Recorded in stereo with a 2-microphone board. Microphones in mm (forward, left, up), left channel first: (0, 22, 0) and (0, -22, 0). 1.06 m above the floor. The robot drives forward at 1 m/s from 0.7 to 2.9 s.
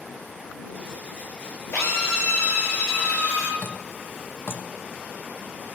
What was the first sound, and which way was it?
A drill, 85° left.